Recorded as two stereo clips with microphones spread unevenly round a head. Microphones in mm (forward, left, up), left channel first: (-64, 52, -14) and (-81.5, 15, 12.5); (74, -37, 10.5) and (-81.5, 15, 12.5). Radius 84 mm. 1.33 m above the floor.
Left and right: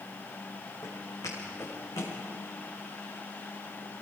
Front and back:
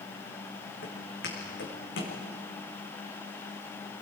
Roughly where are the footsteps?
Ahead.